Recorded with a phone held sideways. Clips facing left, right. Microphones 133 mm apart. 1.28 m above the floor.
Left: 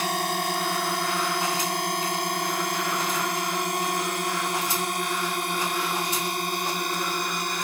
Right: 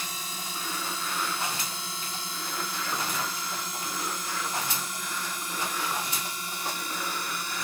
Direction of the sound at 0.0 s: 70° left (ahead or behind).